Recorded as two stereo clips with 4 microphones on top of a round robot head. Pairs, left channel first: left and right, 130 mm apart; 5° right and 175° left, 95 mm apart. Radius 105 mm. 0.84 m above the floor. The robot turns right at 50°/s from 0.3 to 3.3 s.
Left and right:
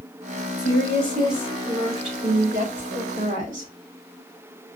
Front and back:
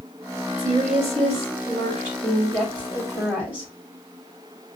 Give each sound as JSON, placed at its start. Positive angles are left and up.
{"t": 0.6, "sound": "a woman speaking", "azimuth_deg": 150, "distance_m": 3.5}